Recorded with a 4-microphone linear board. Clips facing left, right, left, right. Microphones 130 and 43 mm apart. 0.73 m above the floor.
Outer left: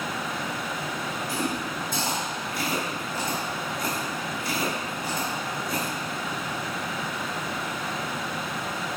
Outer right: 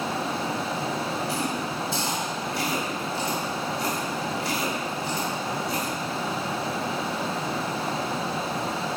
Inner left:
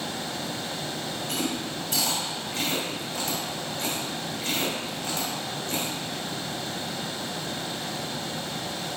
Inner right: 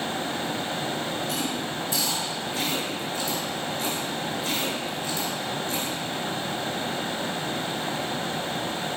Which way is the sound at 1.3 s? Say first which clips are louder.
Outer right 1 dB, inner right 1 dB; 50° left (ahead or behind).